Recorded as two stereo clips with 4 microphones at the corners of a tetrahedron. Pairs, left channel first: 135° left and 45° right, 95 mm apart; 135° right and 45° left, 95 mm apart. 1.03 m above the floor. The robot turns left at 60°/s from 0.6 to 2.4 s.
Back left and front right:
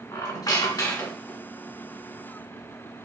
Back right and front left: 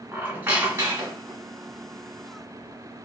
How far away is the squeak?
About 1.2 m.